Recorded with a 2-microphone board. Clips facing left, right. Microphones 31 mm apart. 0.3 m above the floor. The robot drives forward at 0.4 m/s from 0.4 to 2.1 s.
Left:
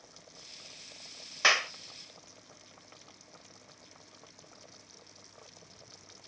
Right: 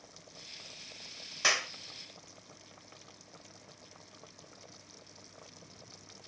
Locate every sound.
1.4 s a clap: 25° left (ahead or behind), 0.7 m